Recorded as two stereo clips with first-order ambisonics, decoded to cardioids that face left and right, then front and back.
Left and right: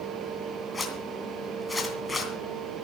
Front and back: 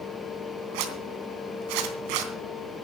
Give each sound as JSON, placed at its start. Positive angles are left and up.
{"t": 0.7, "sound": "a zipper", "azimuth_deg": 170, "distance_m": 2.5}